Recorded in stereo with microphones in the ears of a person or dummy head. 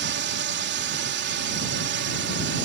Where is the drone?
55° right (ahead or behind); by 2.6 s 60° right (ahead or behind).